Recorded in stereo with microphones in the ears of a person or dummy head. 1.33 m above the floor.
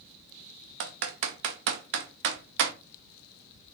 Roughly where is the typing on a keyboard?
Right.